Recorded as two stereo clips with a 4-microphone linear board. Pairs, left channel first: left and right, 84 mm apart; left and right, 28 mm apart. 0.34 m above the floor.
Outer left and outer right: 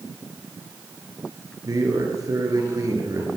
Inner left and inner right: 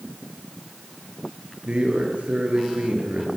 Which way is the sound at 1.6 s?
45° right (ahead or behind).